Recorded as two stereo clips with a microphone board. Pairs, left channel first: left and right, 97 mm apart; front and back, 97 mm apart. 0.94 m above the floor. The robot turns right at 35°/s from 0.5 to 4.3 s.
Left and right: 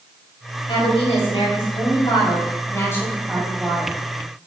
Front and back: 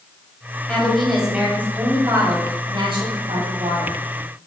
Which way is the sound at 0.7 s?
75° left.